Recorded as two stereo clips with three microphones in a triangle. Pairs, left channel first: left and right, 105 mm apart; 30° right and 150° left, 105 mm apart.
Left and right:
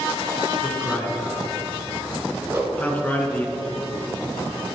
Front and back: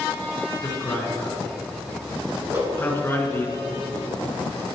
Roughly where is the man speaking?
Ahead left.